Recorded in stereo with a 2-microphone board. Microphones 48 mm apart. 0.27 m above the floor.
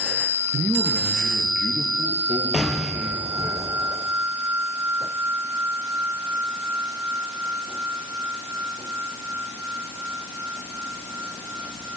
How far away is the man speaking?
About 3.5 m.